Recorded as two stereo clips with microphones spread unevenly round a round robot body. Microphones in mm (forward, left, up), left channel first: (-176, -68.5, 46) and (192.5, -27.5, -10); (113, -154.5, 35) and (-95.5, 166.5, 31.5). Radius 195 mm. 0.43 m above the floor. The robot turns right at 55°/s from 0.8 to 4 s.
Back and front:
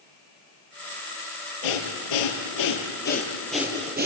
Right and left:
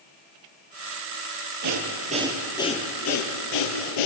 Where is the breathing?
170° left, 4 m; by 4.1 s 60° right, 4 m.